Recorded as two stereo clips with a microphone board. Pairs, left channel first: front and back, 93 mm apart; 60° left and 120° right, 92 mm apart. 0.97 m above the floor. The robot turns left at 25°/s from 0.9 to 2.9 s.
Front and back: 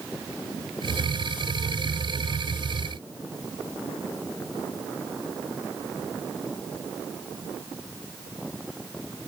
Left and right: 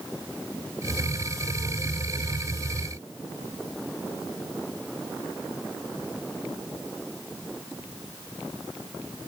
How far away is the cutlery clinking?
I don't hear cutlery clinking.